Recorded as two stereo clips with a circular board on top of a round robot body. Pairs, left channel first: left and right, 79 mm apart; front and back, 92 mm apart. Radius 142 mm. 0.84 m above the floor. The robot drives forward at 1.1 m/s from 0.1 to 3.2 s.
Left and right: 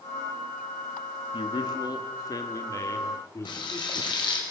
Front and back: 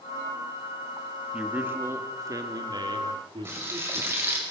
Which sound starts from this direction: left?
A man speaking, at 1.3 s.